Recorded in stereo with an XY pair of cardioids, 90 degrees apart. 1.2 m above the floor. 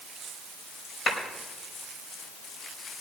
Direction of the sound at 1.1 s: 55° left.